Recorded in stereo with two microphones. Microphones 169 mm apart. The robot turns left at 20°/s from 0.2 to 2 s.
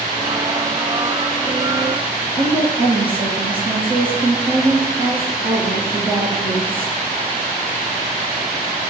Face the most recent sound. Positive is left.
turn(degrees=-35)  # may be behind; listen again after turning